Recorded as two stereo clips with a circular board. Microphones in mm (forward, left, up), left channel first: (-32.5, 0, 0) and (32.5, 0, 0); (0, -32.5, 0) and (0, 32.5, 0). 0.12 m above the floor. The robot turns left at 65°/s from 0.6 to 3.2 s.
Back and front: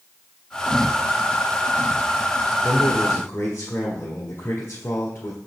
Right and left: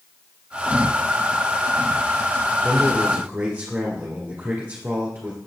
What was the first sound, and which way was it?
A man speaking, straight behind.